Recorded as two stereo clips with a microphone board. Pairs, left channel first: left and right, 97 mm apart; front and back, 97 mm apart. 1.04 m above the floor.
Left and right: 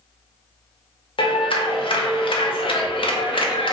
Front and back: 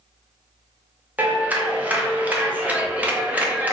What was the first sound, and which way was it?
A clap, 105° left.